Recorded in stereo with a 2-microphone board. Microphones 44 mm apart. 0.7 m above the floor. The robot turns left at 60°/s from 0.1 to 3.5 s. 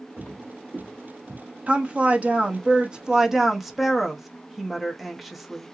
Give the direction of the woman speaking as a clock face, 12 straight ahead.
2 o'clock.